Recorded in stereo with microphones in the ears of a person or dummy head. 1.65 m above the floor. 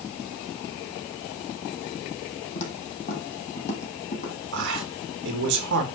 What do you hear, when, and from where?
2.5 s footsteps: 40° left (ahead or behind), 3 m
4.5 s a man speaking: 60° right (ahead or behind), 2.5 m